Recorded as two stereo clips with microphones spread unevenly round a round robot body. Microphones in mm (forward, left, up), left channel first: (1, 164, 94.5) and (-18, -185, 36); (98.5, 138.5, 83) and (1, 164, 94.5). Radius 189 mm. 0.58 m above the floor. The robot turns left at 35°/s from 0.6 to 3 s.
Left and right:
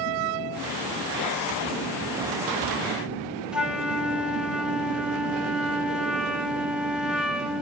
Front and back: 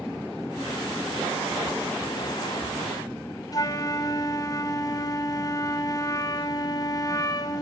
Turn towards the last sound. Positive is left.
turn(degrees=-15)